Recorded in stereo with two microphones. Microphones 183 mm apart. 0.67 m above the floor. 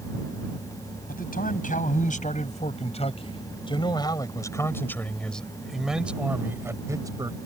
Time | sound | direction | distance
1.1 | a man speaking | 50° left (ahead or behind) | ?